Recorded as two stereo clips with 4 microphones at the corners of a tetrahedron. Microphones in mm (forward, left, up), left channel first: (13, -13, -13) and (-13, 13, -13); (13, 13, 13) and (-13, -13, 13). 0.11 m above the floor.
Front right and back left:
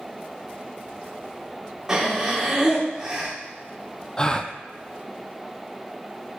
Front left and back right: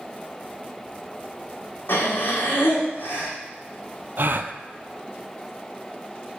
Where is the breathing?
60° left, 2.5 m.